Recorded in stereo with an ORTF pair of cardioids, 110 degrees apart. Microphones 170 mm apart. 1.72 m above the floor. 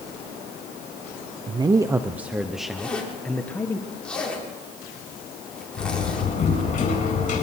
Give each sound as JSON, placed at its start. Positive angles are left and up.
{"t": 1.5, "sound": "a man speaking", "azimuth_deg": -30, "distance_m": 0.9}
{"t": 2.8, "sound": "a zipper", "azimuth_deg": 5, "distance_m": 6.5}
{"t": 5.8, "sound": "a door slam", "azimuth_deg": 50, "distance_m": 8.0}